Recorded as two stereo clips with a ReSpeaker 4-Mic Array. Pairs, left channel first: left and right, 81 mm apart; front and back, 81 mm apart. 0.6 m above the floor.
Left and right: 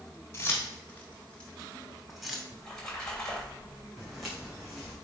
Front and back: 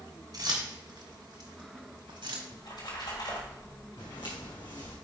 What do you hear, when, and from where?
0.3 s keys jangling: 150° left, 2.5 m; by 2.4 s 170° right, 2 m
2.5 s a splash: 15° left, 3.5 m
4.0 s footsteps: straight ahead, 2.5 m